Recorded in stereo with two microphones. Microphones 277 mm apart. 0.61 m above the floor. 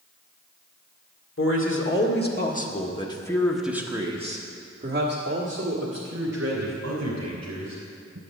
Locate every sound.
1.4 s a man speaking: 50° left (ahead or behind), 1.9 m; by 8.2 s 70° right (ahead or behind), 3 m